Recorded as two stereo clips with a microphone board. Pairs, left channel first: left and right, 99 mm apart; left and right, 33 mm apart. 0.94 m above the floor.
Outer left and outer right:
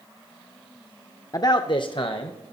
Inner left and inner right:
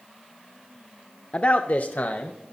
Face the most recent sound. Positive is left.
turn(degrees=65)  # may be behind; listen again after turning